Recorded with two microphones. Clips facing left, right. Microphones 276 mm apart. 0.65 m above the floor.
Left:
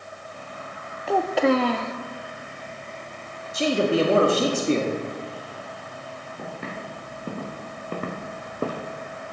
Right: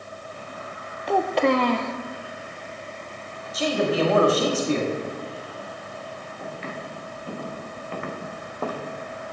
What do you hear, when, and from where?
1.1 s a child speaking: 5° left (ahead or behind), 0.6 m
3.5 s a man speaking: 30° left (ahead or behind), 1.3 m
6.4 s footsteps: 55° left (ahead or behind), 4 m; by 8.8 s 20° left (ahead or behind), 1.3 m